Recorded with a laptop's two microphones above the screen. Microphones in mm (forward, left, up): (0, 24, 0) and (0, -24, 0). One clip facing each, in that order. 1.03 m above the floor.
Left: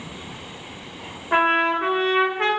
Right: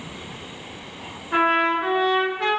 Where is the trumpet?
50° left (ahead or behind), 1.1 m.